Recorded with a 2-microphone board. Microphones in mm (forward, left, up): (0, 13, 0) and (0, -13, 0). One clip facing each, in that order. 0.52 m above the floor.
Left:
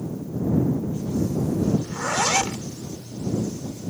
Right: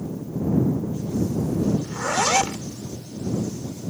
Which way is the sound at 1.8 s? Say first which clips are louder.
Right 1 dB; 15° right (ahead or behind).